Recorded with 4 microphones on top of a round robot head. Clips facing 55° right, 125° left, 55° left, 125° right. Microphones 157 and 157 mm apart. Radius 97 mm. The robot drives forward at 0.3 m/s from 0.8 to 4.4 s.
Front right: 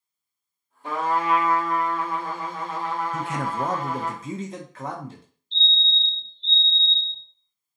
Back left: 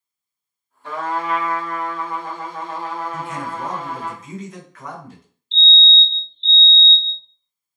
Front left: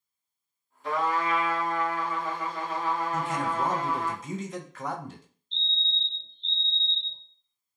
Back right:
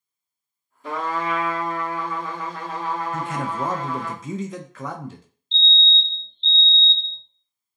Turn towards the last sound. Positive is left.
turn(degrees=-110)